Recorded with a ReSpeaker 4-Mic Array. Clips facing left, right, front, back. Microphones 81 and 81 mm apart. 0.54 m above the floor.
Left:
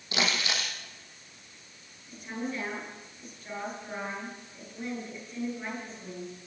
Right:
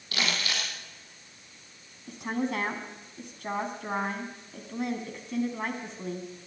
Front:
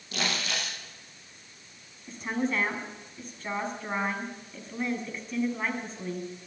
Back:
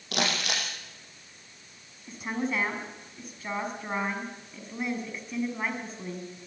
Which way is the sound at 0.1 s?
160° left.